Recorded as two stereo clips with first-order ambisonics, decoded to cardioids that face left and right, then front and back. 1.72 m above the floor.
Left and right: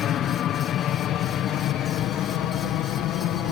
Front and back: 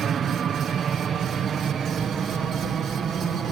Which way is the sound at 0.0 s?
130° left.